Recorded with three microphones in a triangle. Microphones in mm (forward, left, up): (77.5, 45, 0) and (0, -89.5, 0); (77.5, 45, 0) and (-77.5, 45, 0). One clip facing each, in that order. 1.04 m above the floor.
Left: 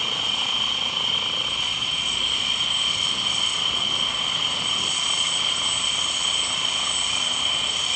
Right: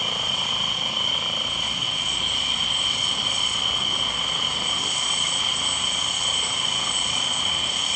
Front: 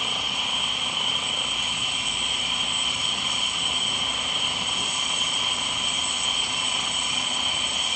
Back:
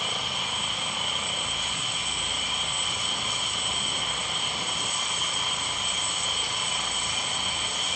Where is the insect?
75° right, 2.5 m.